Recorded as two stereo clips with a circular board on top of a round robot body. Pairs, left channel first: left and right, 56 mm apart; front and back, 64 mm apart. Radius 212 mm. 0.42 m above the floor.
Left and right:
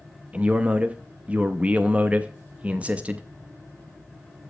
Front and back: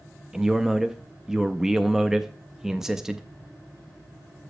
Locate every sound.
0.3 s a man speaking: 110° right, 0.9 m